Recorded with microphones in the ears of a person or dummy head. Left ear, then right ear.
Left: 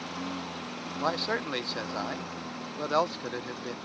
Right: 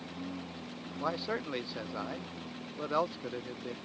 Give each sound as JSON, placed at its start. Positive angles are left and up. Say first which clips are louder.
{"t": 0.0, "sound": "a lawn mower", "louder": "left 7 dB", "side_deg": 55}
{"t": 1.0, "sound": "a man speaking", "louder": "left 5 dB", "side_deg": 20}